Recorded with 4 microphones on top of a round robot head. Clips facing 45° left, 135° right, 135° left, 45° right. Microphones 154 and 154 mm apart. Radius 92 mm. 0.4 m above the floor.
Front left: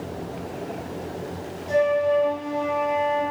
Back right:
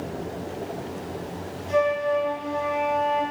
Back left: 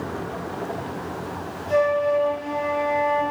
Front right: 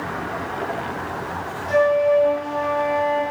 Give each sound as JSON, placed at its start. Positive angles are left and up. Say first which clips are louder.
{"t": 1.7, "sound": "a flute", "louder": "front left 2 dB, front right 3 dB", "azimuth_deg": -5, "distance_m": 4.5}